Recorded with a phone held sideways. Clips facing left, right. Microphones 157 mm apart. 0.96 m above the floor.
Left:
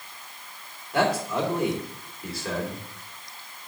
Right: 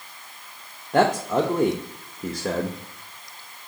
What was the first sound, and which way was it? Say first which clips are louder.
A man speaking: right 4 dB; 45° right (ahead or behind).